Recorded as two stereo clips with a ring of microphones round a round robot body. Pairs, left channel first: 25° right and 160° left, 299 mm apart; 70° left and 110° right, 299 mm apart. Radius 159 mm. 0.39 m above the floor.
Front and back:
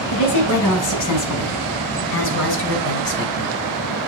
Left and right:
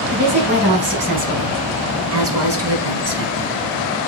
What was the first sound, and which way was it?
A woman speaking, 55° right.